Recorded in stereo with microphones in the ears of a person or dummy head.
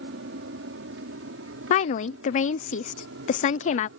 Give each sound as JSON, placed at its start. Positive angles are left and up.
{"t": 0.0, "sound": "an aircraft", "side_deg": -70}
{"t": 1.7, "sound": "a woman speaking", "side_deg": 45}